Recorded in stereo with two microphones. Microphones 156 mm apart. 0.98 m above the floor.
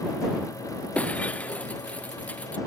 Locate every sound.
0.9 s breaking glass: 10° left (ahead or behind)